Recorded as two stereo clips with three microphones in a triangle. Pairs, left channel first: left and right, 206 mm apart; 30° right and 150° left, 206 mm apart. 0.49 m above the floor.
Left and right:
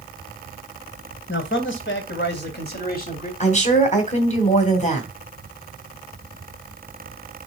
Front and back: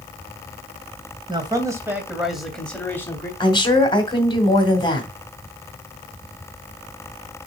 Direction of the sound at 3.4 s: 35° left.